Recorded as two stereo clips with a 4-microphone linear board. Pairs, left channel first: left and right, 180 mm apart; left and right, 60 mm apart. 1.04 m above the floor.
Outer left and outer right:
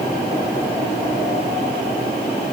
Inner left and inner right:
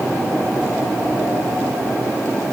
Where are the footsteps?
I don't hear footsteps.